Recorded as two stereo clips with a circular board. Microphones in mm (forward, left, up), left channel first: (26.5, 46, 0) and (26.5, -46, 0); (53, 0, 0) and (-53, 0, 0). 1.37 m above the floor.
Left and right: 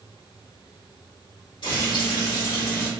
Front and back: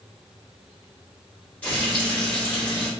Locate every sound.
1.6 s frying: 75° left, 1.3 m